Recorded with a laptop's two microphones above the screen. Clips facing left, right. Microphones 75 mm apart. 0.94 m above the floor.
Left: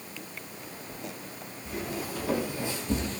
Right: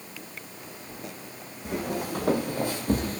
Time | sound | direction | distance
1.6 | footsteps | 65° right (ahead or behind) | 2 m